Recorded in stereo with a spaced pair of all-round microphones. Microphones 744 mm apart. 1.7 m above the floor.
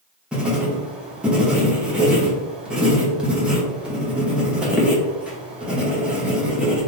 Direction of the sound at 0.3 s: Centre (ahead or behind).